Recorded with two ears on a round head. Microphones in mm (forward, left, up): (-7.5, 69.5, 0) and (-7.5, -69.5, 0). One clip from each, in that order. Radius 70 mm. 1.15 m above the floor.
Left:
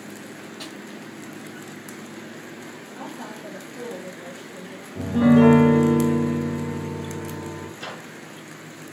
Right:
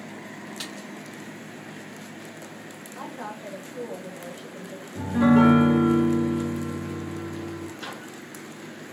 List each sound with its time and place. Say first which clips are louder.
0.6 s a snare drum: right 2 dB; 50° right (ahead or behind), 0.6 m
3.0 s a woman speaking: right 1 dB; 55° right (ahead or behind), 0.8 m
5.0 s a piano: left 2 dB; 25° right (ahead or behind), 0.8 m
7.8 s a microwave: left 2 dB; 10° right (ahead or behind), 1.5 m